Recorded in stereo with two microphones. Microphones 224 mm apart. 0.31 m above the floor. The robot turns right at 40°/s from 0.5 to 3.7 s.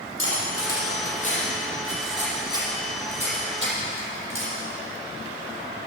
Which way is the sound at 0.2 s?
60° left (ahead or behind).